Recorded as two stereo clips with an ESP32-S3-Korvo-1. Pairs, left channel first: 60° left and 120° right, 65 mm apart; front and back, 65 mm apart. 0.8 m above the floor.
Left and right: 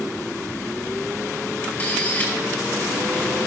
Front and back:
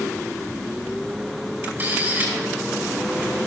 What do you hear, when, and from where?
1.6 s a camera shutter: 120° left, 5 m